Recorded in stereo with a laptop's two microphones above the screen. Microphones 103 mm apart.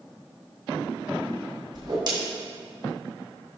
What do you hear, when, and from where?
1.7 s a whoosh: 45° right (ahead or behind), 2.5 m